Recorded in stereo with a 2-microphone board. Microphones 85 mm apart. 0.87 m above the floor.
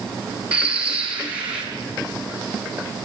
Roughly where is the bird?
Centre.